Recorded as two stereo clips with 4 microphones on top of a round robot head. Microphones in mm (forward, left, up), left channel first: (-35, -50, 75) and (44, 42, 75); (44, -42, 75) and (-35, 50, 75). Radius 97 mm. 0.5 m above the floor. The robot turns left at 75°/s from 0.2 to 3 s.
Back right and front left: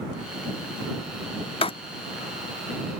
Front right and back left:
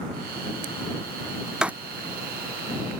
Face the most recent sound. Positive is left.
turn(degrees=110)